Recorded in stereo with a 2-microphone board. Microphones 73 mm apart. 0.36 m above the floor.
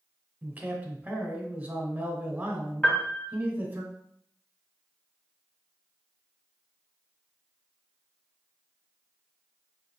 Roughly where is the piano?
Left.